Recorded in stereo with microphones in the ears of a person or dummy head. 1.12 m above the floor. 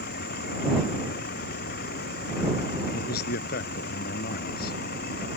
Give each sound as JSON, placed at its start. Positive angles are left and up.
{"t": 0.0, "sound": "a vehicle", "side_deg": 60}
{"t": 2.9, "sound": "a man speaking", "side_deg": 55}